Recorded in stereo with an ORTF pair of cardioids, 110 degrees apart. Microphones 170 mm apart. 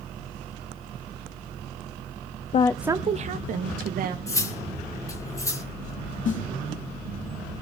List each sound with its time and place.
2.5 s a woman speaking: 40° left, 0.5 m; by 4.2 s 60° right, 2 m
4.3 s cutlery clinking: 20° left, 3 m
6.2 s a snare drum: 50° left, 3.5 m